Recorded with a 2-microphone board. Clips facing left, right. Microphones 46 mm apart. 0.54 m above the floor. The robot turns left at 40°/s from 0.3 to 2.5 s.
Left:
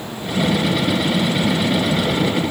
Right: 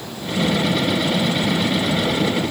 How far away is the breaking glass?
No breaking glass in this recording.